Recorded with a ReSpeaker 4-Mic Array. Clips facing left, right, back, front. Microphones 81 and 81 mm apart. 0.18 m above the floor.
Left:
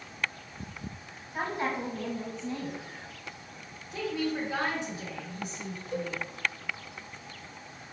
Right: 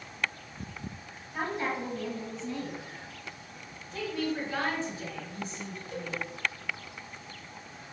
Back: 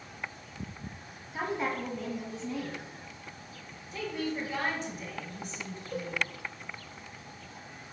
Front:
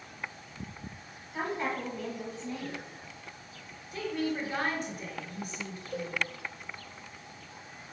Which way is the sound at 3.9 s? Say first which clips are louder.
Left 1 dB, front 2 dB; 20° left.